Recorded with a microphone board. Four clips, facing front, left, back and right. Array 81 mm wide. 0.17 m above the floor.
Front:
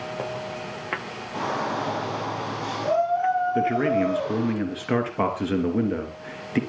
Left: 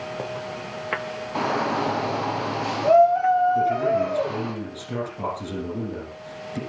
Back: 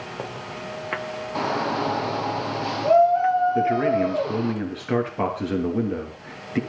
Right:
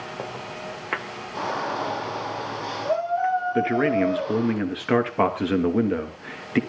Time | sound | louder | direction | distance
1.4 | a shout | left 3 dB, back 2 dB | 120° left | 4 m
3.5 | a man speaking | even, back 1 dB | 85° right | 2.5 m